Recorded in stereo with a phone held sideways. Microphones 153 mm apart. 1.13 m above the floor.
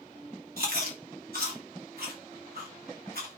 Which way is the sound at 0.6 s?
80° right.